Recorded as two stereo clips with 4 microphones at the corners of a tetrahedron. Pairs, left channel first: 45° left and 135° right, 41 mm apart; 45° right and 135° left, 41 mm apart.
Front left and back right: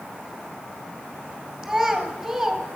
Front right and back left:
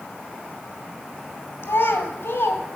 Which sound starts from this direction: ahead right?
A child speaking, at 1.6 s.